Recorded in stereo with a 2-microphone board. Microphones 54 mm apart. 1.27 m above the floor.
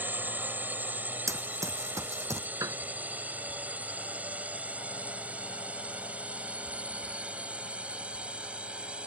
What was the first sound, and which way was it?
A drone, 35° right (ahead or behind).